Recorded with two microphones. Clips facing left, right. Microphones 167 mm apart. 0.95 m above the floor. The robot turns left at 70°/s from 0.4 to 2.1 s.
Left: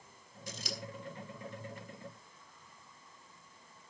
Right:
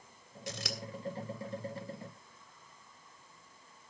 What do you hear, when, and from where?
0.5 s scissors: 85° right, 2.5 m; by 0.8 s 75° right (ahead or behind), 2.5 m